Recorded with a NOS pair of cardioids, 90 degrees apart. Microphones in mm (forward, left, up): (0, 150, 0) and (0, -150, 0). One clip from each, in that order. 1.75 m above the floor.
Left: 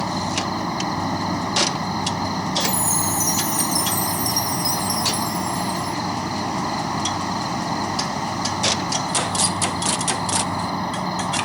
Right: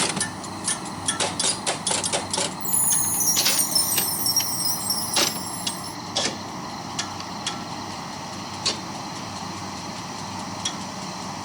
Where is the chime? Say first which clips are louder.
Left 6 dB; 10° right.